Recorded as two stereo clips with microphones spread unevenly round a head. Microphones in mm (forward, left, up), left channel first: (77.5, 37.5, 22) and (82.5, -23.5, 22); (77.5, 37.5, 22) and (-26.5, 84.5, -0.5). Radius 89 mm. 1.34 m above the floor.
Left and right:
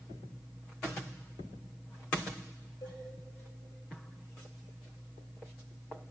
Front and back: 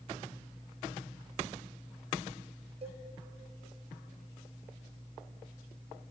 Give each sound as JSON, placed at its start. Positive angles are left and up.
{"t": 2.8, "sound": "a cowbell", "azimuth_deg": 125, "distance_m": 2.5}